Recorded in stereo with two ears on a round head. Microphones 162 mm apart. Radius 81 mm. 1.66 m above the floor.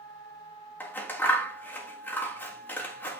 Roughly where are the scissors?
Centre.